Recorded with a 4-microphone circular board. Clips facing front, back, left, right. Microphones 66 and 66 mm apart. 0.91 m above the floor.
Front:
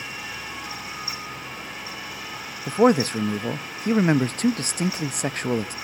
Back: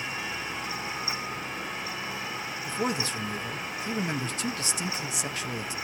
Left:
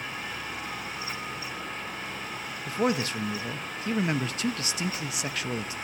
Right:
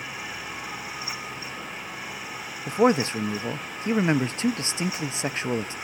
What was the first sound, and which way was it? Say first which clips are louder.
A man speaking: front 13 dB, right 6 dB; 35° right.